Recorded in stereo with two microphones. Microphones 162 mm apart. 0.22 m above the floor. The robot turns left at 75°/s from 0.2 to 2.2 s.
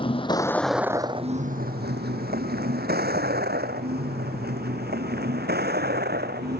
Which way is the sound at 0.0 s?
35° left (ahead or behind).